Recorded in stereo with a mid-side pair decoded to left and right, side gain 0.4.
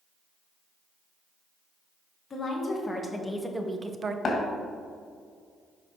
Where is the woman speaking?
30° left, 1.8 m; by 4.2 s 50° right, 0.8 m.